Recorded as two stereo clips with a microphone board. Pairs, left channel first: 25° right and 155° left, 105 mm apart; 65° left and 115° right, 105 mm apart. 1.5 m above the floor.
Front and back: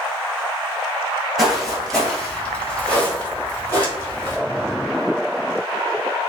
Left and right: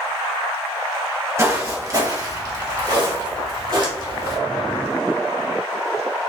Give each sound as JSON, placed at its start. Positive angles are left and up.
{"t": 1.4, "sound": "footsteps", "azimuth_deg": -115, "distance_m": 1.6}